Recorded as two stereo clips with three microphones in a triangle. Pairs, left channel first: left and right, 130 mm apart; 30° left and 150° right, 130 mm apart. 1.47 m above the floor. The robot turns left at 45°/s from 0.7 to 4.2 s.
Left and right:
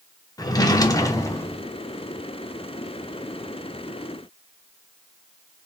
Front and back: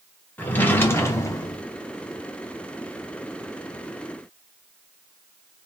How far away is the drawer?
About 0.6 m.